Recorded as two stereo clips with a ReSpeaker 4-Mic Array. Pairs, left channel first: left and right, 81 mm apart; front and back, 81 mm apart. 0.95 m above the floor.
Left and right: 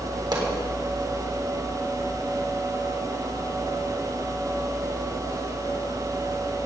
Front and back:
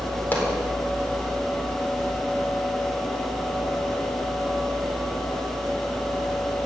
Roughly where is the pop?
Ahead right.